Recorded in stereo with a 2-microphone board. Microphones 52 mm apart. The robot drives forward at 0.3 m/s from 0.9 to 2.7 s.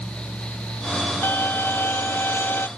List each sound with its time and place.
1.2 s a violin: 45° left (ahead or behind); by 2.7 s 50° left (ahead or behind)